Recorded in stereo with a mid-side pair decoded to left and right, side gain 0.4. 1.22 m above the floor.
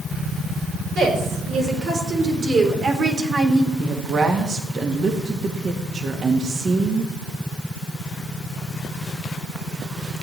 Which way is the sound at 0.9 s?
65° right.